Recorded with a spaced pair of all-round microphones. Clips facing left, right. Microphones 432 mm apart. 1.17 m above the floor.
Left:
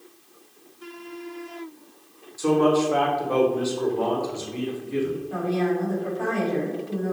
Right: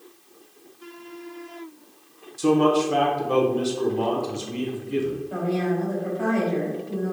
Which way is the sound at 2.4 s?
45° right (ahead or behind).